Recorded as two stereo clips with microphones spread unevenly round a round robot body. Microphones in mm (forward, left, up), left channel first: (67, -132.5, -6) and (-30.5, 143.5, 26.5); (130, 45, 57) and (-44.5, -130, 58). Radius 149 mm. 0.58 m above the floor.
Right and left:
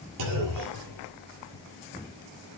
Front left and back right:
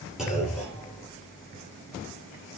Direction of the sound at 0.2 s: 135° left.